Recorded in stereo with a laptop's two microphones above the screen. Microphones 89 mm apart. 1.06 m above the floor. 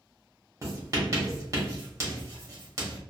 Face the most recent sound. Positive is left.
turn(degrees=-35)  # may be behind; listen again after turning